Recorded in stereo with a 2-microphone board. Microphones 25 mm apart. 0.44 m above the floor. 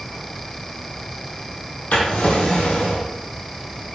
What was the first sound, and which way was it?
A drawer, 80° left.